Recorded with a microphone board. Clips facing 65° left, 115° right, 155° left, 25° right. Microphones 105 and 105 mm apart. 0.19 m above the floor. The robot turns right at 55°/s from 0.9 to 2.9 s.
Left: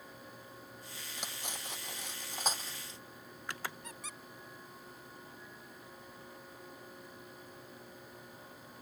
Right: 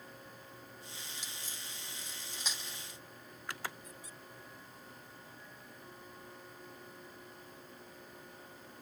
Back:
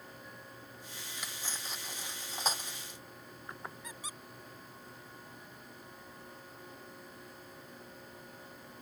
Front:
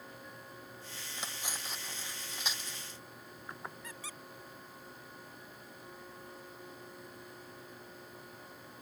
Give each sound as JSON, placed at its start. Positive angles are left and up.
{"t": 1.2, "sound": "cutlery clinking", "azimuth_deg": 35}
{"t": 3.8, "sound": "a squeak", "azimuth_deg": 80}